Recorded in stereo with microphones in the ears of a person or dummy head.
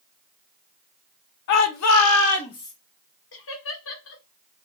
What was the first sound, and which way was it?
A shout, 65° left (ahead or behind).